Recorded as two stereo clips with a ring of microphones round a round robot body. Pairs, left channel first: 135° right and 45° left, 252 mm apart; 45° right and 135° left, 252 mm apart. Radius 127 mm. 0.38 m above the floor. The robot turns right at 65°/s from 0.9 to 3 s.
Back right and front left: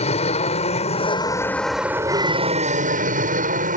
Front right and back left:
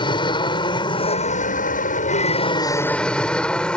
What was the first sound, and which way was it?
An aircraft, 100° right.